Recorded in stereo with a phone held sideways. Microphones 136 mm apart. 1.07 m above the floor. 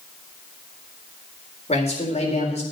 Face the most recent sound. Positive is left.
turn(degrees=55)  # may be behind; listen again after turning